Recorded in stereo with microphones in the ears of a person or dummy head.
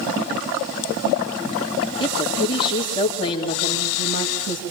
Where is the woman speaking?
30° left (ahead or behind), 3.5 m.